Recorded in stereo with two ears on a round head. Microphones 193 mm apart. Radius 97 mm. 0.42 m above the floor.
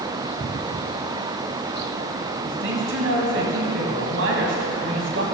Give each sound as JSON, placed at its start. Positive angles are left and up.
{"t": 2.4, "sound": "a man speaking", "side_deg": -60, "distance_m": 2.5}